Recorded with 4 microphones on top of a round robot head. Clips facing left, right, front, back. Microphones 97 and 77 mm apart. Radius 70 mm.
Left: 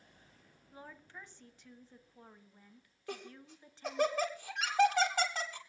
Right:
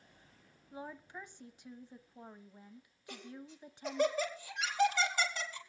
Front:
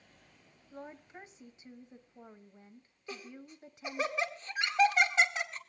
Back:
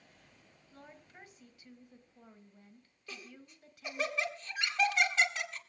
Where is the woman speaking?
35° right, 1.2 m.